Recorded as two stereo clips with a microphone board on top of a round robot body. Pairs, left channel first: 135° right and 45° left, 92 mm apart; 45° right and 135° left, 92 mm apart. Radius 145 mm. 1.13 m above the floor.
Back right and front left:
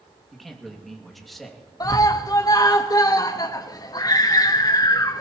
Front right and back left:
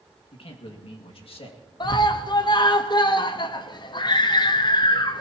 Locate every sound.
0.3 s a man speaking: 45° right, 2 m
1.8 s a scream: 85° right, 1.1 m